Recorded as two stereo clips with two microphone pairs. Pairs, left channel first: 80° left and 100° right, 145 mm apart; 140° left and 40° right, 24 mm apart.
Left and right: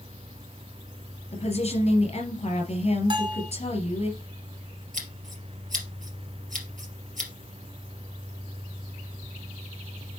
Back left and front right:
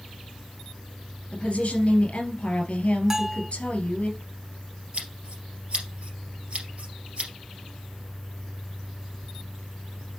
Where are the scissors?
85° right, 2.5 m.